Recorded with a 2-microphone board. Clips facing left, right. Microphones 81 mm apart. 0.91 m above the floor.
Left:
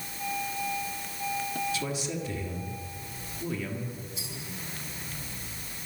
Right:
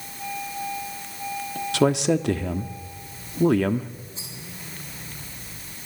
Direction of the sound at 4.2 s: 35° right (ahead or behind).